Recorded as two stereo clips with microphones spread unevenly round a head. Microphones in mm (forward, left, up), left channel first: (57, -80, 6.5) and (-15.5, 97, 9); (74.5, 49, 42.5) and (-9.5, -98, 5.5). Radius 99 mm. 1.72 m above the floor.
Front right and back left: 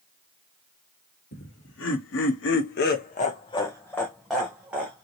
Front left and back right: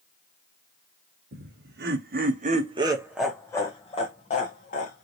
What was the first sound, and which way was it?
Laughter, 100° right.